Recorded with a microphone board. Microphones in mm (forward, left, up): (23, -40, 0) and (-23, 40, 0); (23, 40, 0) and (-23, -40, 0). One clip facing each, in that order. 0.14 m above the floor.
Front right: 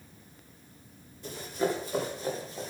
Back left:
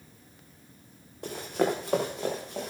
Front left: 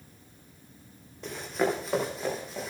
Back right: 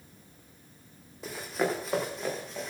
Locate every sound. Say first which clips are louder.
1.2 s running footsteps: back left 3 dB, front left 2 dB; 155° left, 4.5 m; by 2.7 s 145° left, 6.5 m